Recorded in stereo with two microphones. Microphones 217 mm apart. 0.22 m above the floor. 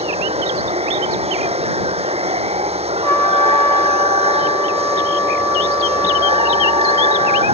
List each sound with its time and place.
0.0 s running water: 30° right (ahead or behind)
3.0 s a trumpet: 10° left (ahead or behind)